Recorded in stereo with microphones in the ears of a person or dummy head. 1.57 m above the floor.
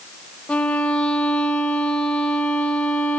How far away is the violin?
About 1.2 m.